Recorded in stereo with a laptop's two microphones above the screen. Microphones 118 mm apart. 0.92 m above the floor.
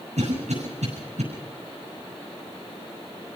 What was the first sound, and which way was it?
A cough, 85° right.